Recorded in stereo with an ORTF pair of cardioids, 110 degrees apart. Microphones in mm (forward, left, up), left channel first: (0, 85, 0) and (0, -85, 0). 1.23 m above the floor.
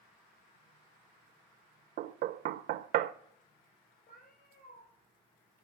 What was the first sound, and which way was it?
Knocking, 65° right.